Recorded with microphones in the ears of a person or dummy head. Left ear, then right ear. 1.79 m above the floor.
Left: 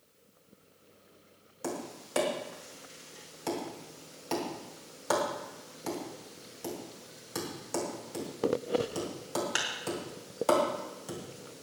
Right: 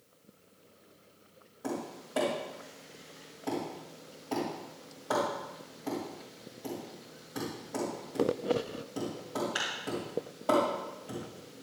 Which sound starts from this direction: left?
Tapping, at 1.6 s.